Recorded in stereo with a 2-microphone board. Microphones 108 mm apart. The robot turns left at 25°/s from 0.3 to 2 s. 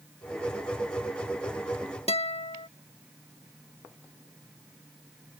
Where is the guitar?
65° left (ahead or behind).